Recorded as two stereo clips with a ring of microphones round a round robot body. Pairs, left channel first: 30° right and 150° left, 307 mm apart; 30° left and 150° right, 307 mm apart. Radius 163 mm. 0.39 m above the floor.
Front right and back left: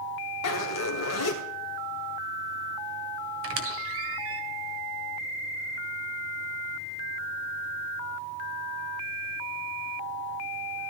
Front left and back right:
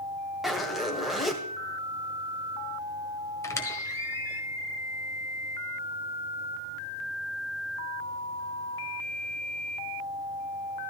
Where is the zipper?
60° right, 1.9 m.